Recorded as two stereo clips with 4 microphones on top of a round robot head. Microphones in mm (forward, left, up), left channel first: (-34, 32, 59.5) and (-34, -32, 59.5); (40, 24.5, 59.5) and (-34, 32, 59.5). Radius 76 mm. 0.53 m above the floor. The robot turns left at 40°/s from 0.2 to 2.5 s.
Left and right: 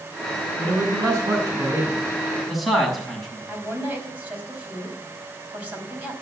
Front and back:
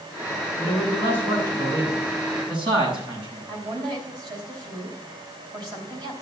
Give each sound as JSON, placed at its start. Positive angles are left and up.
{"t": 0.6, "sound": "a man speaking", "azimuth_deg": -100, "distance_m": 6.0}
{"t": 3.5, "sound": "a woman speaking", "azimuth_deg": -155, "distance_m": 4.5}